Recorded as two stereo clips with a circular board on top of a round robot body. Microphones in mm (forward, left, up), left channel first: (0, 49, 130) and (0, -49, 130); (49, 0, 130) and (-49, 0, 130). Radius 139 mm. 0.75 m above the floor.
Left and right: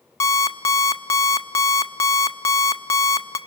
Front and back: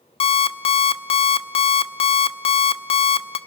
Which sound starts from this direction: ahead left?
An alarm clock, at 0.2 s.